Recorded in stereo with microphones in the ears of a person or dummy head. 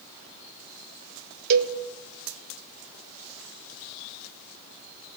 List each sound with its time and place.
1.5 s a cowbell: 50° right (ahead or behind), 0.8 m